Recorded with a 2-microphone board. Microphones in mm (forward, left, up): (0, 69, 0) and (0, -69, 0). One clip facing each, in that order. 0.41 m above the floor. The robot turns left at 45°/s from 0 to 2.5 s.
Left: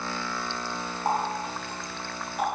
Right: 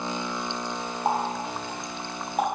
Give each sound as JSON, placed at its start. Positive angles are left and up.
{"t": 1.1, "sound": "a running tap", "side_deg": -20, "distance_m": 1.3}